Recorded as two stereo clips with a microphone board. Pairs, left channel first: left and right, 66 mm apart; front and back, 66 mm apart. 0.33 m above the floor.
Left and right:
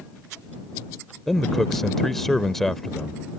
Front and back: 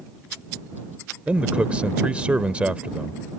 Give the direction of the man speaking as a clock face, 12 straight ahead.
6 o'clock.